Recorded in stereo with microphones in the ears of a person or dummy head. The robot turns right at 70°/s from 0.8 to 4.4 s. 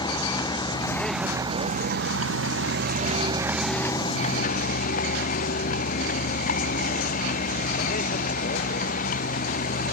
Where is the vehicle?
155° left; by 9.9 s 50° left.